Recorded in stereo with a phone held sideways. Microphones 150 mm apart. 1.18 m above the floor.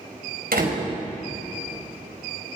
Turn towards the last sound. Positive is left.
turn(degrees=-80)